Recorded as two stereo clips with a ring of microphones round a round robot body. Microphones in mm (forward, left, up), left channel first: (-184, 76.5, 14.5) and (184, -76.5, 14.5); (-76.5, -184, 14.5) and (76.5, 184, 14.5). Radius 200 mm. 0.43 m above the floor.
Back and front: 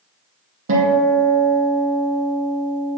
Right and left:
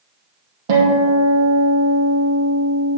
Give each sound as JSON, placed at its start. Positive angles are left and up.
{"t": 0.7, "sound": "a guitar", "azimuth_deg": 40, "distance_m": 3.0}